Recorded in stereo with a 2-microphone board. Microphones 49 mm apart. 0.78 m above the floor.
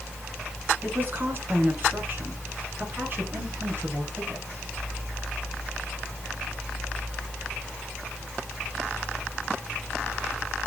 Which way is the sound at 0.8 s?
35° right (ahead or behind).